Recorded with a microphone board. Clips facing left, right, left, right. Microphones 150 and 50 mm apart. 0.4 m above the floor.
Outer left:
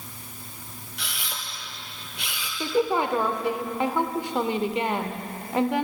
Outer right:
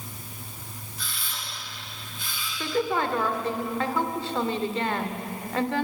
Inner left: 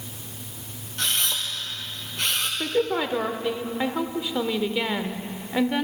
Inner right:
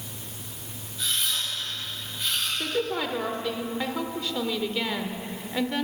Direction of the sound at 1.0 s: 85° left.